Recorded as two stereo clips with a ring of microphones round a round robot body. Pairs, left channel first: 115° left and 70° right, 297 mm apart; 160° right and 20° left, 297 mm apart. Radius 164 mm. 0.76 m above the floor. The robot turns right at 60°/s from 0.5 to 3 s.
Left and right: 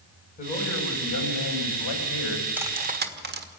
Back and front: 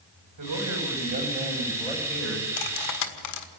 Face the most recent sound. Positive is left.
turn(degrees=-125)